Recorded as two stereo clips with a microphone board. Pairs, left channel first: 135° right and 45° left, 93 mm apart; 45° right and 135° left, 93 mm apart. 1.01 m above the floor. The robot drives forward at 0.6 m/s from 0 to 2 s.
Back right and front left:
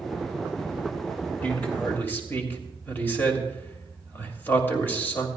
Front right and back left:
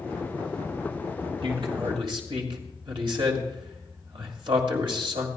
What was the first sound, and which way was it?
A man speaking, 155° left.